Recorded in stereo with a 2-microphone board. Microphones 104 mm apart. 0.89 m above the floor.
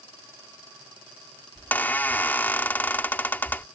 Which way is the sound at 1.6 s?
20° left (ahead or behind).